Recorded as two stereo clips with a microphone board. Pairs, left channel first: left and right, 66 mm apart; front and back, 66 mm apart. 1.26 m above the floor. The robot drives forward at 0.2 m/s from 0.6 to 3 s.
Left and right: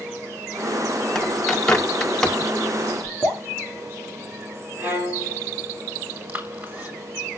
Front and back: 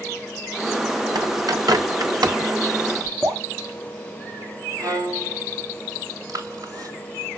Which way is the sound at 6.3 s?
155° right.